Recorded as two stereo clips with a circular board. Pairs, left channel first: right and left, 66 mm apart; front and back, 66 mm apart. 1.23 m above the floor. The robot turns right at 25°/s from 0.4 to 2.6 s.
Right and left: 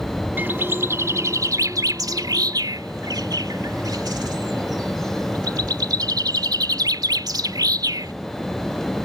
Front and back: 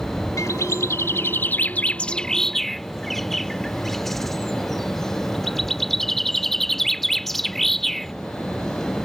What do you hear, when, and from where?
0.4 s a bird: 30° left; by 8.1 s 85° left